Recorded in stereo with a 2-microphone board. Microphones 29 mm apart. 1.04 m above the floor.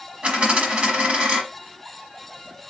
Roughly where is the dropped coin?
Right.